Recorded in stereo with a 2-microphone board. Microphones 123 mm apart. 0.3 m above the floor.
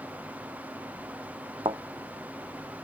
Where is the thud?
40° right (ahead or behind).